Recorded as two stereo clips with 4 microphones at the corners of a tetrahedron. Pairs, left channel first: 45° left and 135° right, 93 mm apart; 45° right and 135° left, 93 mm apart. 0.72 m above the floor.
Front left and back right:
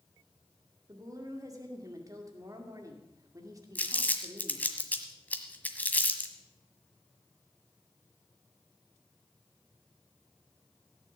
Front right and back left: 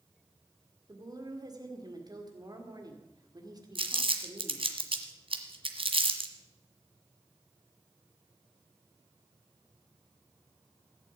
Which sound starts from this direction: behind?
A woman speaking, at 0.9 s.